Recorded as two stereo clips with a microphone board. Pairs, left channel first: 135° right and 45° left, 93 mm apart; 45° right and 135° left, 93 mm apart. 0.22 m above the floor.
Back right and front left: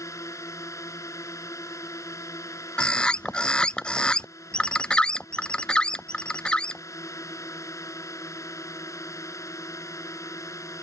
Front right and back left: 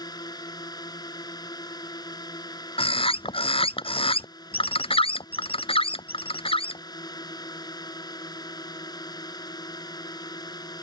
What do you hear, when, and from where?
0.0 s a drone: 85° right
2.8 s a bird: 55° right